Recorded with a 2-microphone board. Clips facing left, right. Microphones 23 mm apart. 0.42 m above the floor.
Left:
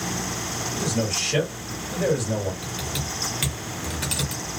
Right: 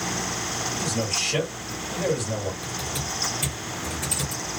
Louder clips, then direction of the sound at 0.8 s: Left 2 dB; 20° left (ahead or behind).